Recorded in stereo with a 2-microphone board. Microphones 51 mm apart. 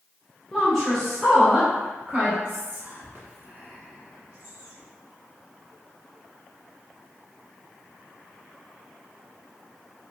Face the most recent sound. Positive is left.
turn(degrees=-45)  # may be behind; listen again after turning